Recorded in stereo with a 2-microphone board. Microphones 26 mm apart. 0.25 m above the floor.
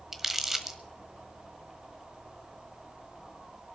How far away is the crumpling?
About 1.1 m.